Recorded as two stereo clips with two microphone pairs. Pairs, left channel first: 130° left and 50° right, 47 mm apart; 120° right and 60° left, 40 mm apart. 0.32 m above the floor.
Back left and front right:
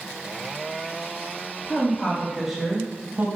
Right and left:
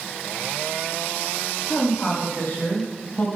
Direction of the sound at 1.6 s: 160° right.